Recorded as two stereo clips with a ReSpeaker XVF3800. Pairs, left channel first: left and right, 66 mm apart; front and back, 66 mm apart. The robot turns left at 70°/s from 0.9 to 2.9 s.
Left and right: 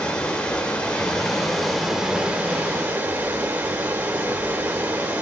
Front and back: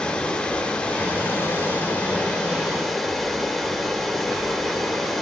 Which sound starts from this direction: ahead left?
Running water, at 0.0 s.